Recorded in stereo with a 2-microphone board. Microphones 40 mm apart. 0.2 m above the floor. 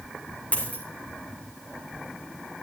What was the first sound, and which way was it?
A dropped coin, 45° left (ahead or behind).